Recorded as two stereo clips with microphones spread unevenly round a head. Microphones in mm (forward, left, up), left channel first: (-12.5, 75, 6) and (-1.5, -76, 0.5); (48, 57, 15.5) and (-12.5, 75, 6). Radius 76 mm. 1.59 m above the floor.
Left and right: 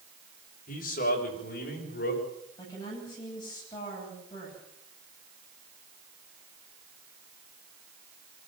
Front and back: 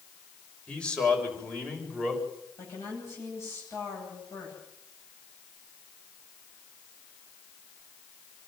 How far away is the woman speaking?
About 10 m.